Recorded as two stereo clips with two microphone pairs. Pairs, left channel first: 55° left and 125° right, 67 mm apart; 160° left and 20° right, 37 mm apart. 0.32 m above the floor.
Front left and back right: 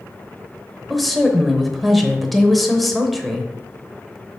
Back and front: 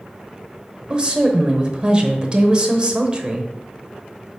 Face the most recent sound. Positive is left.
turn(degrees=-35)